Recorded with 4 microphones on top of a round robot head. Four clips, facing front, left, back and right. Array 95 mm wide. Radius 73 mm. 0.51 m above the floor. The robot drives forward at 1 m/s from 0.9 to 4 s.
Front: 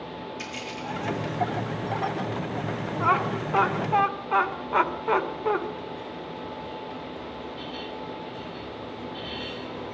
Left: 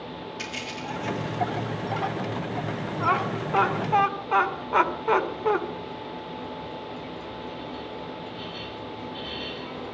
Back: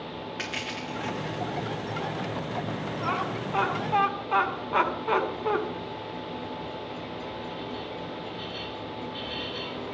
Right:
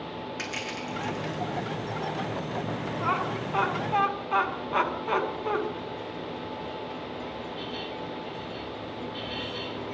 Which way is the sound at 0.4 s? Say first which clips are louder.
Even, even; 150° right.